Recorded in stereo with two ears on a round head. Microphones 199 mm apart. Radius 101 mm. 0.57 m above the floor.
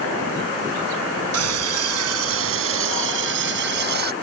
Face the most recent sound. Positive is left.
turn(degrees=-50)  # may be behind; listen again after turning